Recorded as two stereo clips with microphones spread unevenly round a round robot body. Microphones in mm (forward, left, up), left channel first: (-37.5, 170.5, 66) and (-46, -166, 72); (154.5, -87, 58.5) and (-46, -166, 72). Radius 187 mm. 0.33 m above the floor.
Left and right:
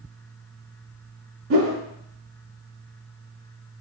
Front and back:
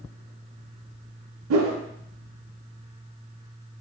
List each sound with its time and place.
1.5 s a whoosh: 145° right, 0.5 m